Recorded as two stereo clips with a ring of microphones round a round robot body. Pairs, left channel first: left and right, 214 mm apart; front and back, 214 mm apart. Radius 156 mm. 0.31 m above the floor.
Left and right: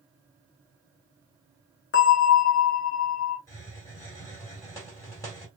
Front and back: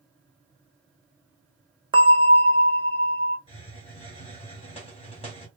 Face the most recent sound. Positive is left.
turn(degrees=30)